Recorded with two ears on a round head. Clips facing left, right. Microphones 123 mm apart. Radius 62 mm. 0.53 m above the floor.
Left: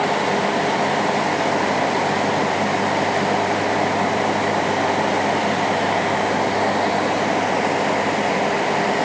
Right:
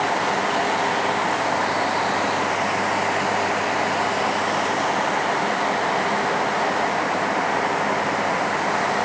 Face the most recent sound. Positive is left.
No sound to turn to.